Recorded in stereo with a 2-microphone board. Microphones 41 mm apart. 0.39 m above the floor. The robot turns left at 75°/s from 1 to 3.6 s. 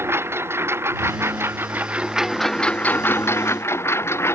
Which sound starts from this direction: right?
A lawn mower, at 0.0 s.